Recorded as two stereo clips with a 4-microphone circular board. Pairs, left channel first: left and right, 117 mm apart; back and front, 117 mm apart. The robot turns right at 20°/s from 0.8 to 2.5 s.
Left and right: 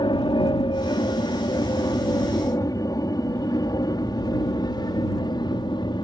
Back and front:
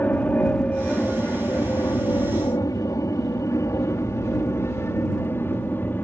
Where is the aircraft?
110° left; by 6.0 s 115° left.